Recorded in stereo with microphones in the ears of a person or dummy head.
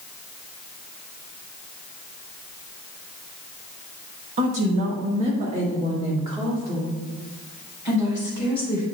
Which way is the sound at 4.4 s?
50° right (ahead or behind).